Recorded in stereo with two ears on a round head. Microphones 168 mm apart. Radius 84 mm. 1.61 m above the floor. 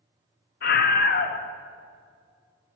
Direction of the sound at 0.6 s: 50° left (ahead or behind).